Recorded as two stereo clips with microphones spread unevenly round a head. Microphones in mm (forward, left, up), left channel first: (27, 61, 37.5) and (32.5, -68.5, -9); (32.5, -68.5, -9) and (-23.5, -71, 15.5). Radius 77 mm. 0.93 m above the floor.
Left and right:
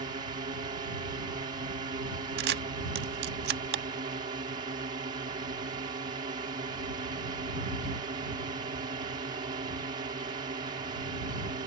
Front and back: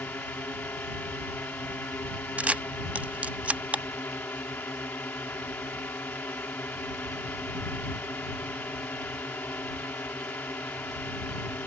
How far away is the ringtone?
I don't hear a ringtone.